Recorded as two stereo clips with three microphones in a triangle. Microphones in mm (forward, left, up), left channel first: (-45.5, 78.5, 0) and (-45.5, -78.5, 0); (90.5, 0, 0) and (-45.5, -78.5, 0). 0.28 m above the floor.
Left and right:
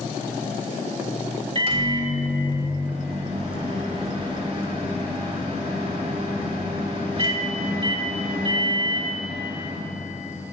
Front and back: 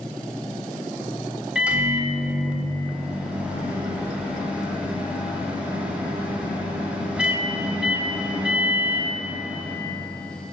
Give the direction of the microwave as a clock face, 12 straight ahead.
2 o'clock.